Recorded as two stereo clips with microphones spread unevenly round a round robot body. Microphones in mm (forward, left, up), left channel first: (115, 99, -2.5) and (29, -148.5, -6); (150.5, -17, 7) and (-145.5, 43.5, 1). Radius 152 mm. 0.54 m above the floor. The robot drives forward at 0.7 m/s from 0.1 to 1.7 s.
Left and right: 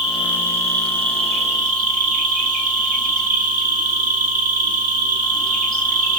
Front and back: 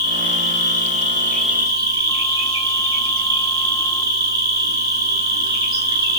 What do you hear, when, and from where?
0.0 s an insect: 25° right, 1.2 m; by 6.2 s 125° right, 0.9 m